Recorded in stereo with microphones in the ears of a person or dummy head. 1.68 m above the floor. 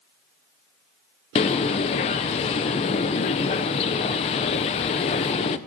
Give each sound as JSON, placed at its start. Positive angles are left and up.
{"t": 1.4, "sound": "a bird", "side_deg": 35, "distance_m": 0.6}